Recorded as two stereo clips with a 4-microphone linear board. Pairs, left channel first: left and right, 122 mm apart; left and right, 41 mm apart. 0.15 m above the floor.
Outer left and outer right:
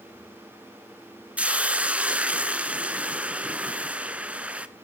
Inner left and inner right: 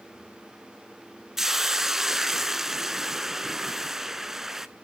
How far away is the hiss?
About 0.5 m.